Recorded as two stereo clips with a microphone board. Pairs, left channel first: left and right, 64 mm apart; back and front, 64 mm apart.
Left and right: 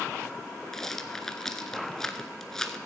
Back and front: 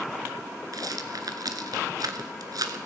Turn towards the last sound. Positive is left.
turn(degrees=10)